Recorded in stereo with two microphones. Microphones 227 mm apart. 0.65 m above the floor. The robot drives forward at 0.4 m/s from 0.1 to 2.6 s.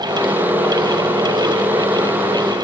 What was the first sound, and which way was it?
Only background noise.